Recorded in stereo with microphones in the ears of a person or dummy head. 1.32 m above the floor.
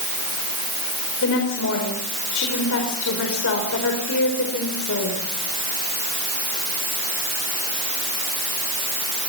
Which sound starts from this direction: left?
A woman speaking, at 1.2 s.